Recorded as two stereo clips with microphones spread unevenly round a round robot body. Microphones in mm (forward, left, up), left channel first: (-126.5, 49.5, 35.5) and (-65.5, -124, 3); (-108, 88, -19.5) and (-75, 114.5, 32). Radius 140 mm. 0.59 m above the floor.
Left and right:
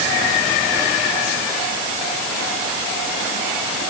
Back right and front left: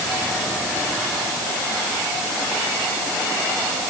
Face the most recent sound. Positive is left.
No sound to turn to.